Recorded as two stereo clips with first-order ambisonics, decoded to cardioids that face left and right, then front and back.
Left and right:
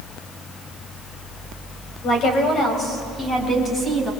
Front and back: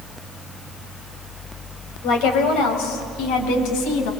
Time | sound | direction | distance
2.0 | a woman speaking | 35° left | 4 m